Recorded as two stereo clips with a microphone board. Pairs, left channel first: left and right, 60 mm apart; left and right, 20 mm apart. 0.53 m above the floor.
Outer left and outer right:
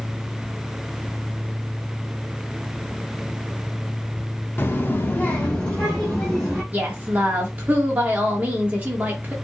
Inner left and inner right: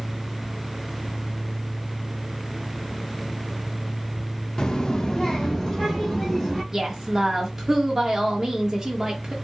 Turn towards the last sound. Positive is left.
turn(degrees=-25)  # may be behind; listen again after turning